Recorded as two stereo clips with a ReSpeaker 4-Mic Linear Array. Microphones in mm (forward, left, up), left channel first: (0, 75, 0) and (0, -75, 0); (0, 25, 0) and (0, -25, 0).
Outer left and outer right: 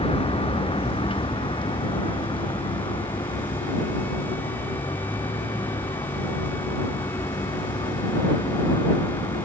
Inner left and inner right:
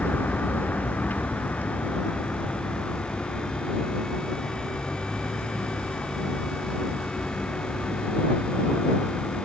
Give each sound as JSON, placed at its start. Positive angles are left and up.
{"t": 0.0, "sound": "a vehicle", "side_deg": 40}